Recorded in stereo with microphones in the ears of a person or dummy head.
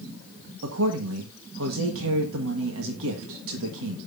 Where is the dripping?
I don't hear dripping.